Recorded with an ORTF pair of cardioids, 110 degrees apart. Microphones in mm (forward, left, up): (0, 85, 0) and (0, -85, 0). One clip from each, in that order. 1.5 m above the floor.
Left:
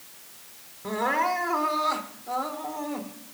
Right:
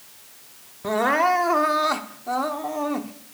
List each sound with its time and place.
0.8 s crying: 45° right, 0.9 m